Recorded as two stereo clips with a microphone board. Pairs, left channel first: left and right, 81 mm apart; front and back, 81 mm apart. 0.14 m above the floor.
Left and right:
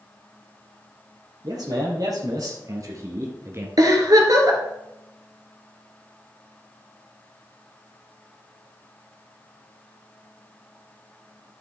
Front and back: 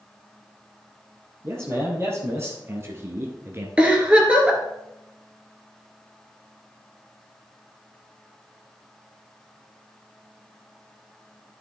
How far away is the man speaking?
About 3 m.